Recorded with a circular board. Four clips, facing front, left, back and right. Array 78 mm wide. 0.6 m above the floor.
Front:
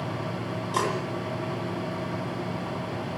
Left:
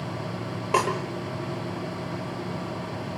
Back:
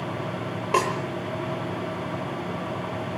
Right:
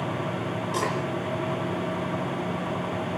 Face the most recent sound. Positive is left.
turn(degrees=135)